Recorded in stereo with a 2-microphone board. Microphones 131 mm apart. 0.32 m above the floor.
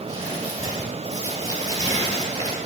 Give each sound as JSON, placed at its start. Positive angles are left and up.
{"t": 0.1, "sound": "crumpling", "side_deg": -25, "distance_m": 6.5}